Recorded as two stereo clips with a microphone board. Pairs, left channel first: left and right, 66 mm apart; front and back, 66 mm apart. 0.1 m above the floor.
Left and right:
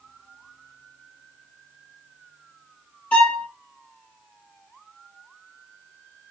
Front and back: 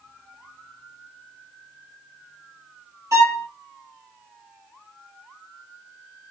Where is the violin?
160° left, 2.0 m.